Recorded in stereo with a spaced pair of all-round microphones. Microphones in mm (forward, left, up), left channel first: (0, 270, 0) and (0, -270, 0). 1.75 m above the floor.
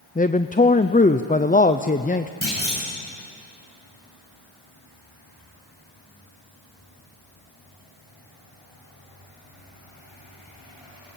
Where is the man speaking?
15° left (ahead or behind), 0.5 m.